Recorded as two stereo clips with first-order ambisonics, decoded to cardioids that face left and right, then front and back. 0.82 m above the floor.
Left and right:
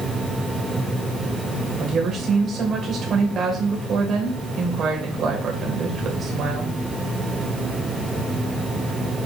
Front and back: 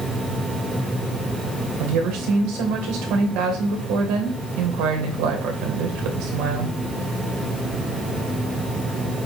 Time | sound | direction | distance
1.8 | a woman speaking | 155° right | 2.5 m